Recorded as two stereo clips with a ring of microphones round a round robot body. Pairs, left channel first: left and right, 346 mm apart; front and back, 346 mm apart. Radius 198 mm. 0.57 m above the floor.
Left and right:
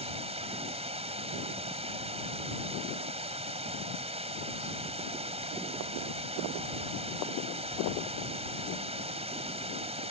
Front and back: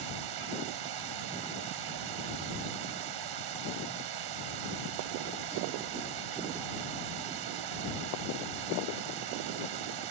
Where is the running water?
165° right.